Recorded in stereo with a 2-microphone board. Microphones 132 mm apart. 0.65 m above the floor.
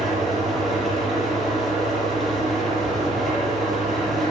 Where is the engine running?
Centre (ahead or behind), 8 m.